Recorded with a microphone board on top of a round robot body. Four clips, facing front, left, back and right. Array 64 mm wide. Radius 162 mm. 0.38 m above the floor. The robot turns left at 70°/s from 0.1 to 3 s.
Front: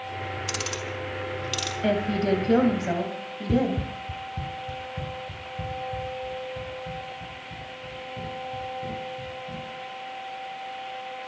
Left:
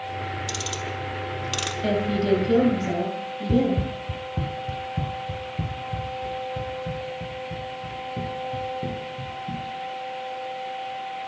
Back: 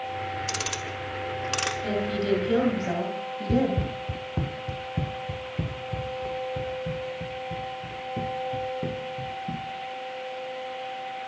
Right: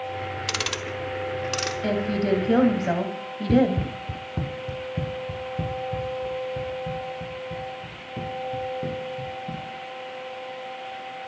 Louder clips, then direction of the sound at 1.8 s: Left 2 dB, front 5 dB; straight ahead.